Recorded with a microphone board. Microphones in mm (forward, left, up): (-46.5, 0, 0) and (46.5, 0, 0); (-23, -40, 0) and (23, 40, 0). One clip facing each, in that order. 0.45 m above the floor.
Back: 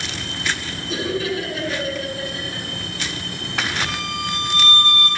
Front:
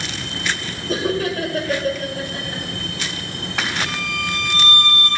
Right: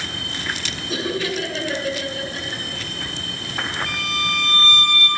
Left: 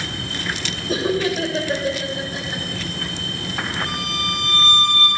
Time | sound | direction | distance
0.9 | laughter | 20° left | 2 m
3.9 | a violin | 125° left | 4.5 m